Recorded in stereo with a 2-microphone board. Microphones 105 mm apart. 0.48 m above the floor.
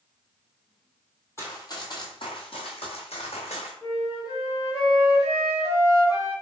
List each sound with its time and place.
1.4 s running footsteps: 25° left (ahead or behind), 0.9 m; by 3.7 s 75° left (ahead or behind), 1.8 m
3.8 s a flute: 35° left (ahead or behind), 1.4 m